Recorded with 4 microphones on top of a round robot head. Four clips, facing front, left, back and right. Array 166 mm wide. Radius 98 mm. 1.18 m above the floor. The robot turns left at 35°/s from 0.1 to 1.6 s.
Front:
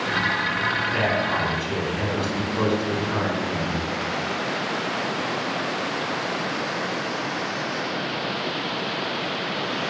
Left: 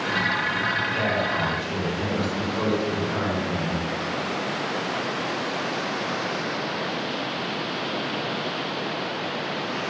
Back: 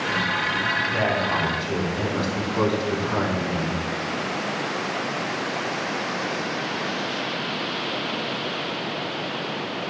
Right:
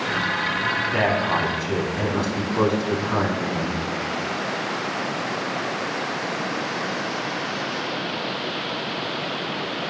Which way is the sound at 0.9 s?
95° right.